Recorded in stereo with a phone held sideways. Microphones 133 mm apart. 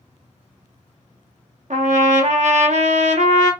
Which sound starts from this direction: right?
A trumpet, at 1.7 s.